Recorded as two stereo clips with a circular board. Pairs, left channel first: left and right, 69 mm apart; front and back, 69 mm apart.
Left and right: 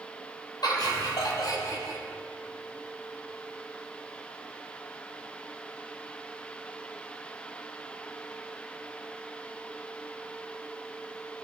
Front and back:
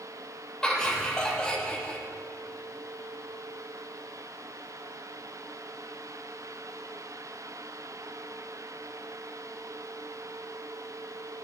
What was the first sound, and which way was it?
Laughter, 80° left.